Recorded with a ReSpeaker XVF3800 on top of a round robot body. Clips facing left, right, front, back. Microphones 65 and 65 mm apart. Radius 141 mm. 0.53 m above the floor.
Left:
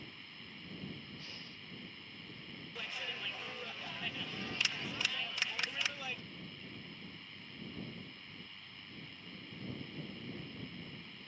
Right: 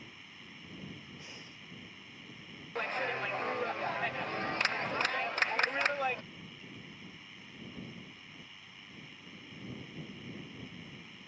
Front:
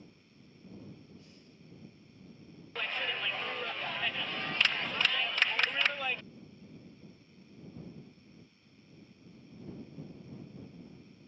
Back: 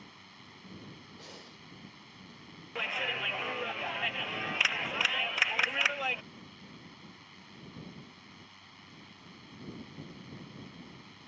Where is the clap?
105° right.